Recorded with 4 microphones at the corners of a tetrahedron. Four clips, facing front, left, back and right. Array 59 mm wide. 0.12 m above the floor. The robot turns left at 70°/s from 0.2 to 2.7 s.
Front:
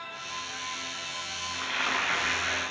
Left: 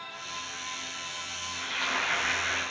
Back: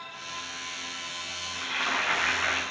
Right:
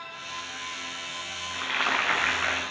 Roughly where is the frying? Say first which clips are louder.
Right 5 dB, even; ahead right.